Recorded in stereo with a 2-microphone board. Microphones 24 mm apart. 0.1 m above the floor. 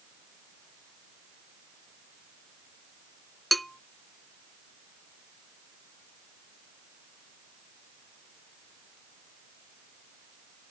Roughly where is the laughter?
No laughter in this recording.